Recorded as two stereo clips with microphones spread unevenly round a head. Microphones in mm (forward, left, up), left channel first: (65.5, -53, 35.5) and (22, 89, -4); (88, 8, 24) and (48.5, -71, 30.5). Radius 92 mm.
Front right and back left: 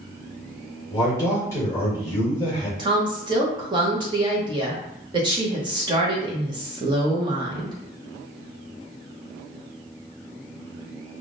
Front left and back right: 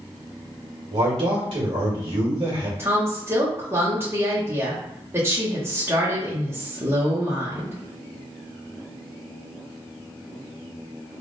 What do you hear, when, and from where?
0.9 s a man speaking: 150° right, 1.6 m
2.8 s a woman speaking: 170° left, 0.9 m